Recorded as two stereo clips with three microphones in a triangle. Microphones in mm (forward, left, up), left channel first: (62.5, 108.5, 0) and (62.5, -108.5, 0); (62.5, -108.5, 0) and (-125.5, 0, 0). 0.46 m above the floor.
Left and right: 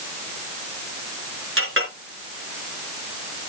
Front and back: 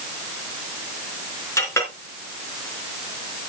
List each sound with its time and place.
1.6 s a clink: 110° right, 3.5 m